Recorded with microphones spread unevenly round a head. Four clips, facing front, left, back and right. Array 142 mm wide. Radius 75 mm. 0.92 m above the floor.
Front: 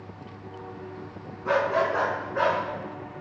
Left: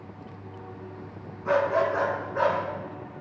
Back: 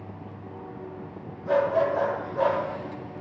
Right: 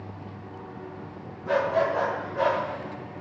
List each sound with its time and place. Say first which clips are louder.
1.4 s a dog barking: left 1 dB, back 1 dB; 20° left, 3.5 m; by 2.6 s 15° left, 4 m